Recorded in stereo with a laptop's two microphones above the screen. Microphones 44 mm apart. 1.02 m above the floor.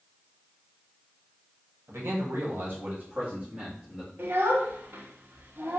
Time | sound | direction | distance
1.9 | a man speaking | 75° right (ahead or behind) | 1.0 m
4.2 | a child speaking | 55° right (ahead or behind) | 0.9 m